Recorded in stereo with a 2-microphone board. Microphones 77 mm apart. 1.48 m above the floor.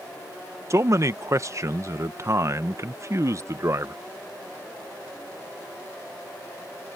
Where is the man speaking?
40° right (ahead or behind).